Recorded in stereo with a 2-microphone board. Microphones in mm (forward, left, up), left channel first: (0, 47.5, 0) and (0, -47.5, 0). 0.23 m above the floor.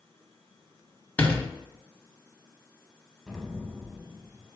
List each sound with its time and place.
1.2 s a door slam: 20° left (ahead or behind), 0.9 m
3.3 s an explosion: centre (ahead or behind), 0.6 m